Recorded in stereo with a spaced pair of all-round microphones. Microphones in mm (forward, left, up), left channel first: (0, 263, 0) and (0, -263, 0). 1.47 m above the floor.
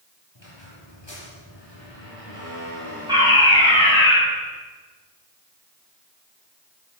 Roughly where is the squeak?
Left.